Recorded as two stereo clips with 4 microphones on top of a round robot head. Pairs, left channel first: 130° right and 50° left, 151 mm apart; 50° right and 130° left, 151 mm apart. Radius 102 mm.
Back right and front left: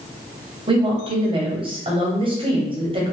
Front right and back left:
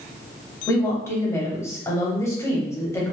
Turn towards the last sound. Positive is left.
turn(degrees=15)